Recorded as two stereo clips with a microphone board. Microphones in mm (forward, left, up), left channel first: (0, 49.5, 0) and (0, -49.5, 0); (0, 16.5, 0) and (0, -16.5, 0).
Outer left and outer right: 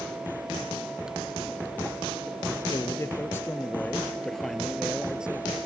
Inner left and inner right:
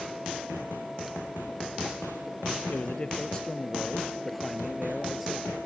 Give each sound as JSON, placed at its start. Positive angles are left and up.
{"t": 2.7, "sound": "a man speaking", "side_deg": 35}